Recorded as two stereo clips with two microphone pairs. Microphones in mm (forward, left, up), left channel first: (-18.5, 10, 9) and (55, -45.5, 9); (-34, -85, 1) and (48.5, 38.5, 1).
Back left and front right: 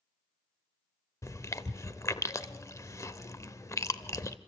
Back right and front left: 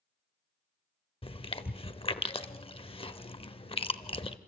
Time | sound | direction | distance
1.2 | chewing | 165° right | 0.7 m